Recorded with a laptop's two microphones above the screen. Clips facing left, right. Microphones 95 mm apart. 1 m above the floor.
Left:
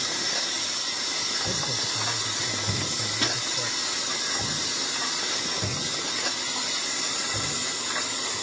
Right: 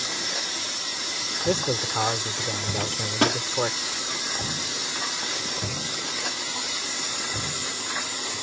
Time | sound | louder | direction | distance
1.4 | a man speaking | right 11 dB | 70° right (ahead or behind) | ?
2.8 | a microwave | right 7 dB | 70° right (ahead or behind) | ?